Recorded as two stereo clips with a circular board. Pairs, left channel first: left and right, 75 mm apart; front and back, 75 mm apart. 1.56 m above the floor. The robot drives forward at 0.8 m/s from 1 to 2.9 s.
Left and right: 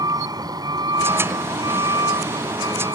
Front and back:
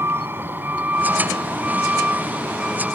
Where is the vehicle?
120° right; by 3.0 s 105° right.